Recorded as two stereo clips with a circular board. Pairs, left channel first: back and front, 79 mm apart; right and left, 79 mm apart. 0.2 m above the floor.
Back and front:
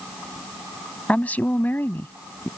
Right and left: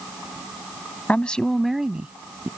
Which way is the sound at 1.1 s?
130° right.